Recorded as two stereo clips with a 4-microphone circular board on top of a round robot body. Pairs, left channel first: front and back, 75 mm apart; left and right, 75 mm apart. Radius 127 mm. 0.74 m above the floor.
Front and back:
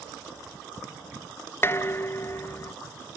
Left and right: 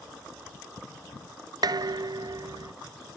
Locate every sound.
1.6 s dishes clattering: 60° right, 0.7 m